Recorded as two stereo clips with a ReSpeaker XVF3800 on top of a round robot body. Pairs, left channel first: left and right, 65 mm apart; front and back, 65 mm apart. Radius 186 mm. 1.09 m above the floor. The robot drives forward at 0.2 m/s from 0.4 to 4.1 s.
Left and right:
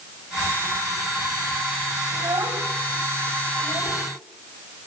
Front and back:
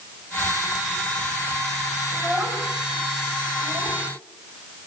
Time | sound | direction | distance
2.1 | a child speaking | 120° right | 6.5 m